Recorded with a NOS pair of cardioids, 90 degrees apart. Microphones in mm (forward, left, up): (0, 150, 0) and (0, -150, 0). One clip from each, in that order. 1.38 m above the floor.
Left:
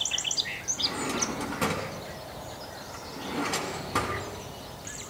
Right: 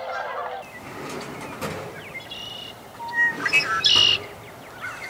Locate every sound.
0.8 s a drawer: 35° left, 7 m